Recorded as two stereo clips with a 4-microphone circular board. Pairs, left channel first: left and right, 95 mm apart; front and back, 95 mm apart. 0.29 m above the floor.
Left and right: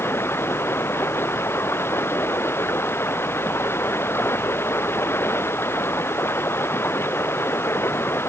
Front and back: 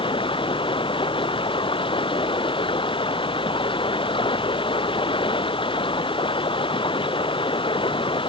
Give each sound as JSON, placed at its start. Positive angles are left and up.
{"t": 0.0, "sound": "running water", "azimuth_deg": 25}